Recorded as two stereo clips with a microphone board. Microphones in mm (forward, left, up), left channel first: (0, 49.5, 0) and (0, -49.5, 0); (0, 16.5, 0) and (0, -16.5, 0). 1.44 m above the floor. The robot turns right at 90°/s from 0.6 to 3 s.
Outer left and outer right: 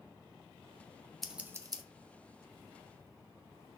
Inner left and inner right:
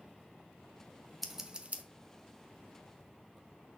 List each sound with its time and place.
1.2 s scissors: 5° left (ahead or behind), 1.1 m; by 1.8 s 50° right (ahead or behind), 1.1 m